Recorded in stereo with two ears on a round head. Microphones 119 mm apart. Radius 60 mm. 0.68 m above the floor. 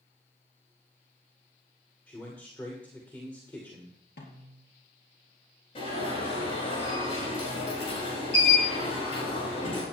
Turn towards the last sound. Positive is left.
turn(degrees=40)  # may be behind; listen again after turning